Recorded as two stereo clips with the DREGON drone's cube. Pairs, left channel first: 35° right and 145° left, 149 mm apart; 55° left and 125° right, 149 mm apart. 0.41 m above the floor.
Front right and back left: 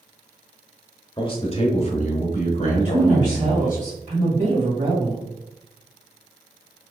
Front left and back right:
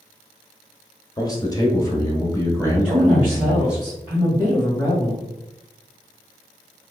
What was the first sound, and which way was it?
A man speaking, 5° left.